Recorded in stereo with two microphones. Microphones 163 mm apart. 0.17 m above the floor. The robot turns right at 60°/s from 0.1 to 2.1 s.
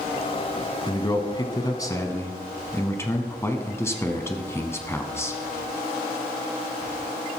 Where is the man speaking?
25° left (ahead or behind), 1.2 m; by 5.4 s 15° left (ahead or behind), 1.2 m.